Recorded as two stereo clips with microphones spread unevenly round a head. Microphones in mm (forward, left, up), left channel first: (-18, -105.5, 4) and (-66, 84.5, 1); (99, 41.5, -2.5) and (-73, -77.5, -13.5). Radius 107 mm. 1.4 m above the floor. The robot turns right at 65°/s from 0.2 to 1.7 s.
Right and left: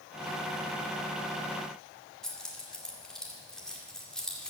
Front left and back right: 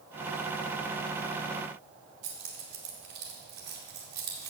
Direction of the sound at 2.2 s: 160° right.